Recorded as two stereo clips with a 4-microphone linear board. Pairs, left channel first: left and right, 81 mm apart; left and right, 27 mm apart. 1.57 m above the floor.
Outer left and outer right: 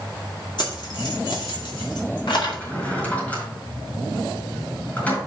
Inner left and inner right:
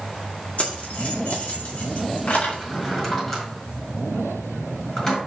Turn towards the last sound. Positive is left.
turn(degrees=15)  # may be behind; listen again after turning